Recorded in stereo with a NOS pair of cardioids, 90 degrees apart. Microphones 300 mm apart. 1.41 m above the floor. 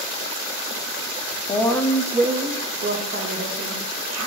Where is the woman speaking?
15° left, 0.7 m; by 4.3 s 55° right, 1.5 m.